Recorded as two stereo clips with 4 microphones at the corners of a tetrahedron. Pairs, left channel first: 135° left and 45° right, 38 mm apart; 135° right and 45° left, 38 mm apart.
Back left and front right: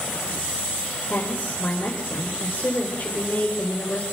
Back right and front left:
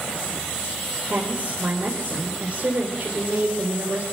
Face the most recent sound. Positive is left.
turn(degrees=85)